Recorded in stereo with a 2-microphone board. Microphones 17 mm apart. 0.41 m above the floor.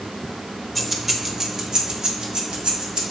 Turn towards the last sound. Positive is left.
turn(degrees=-70)  # may be behind; listen again after turning